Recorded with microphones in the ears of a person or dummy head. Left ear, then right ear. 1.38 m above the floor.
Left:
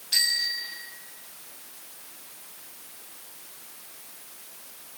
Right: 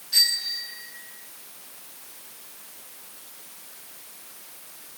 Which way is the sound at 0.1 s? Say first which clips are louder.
Right 2 dB; 25° left (ahead or behind).